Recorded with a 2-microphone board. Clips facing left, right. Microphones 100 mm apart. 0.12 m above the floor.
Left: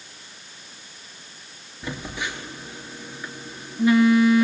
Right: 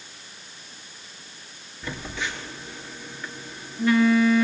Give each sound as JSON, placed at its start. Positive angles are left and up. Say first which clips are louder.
{"t": 1.8, "sound": "a phone buzzing", "louder": "left 1 dB", "side_deg": 15, "distance_m": 2.5}